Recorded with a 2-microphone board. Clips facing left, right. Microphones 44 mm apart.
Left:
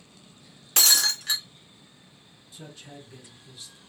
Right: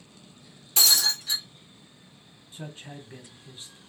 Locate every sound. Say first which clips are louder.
0.8 s breaking glass: even; 65° left (ahead or behind), 1.1 m
2.5 s a man speaking: right 3 dB; 30° right (ahead or behind), 0.9 m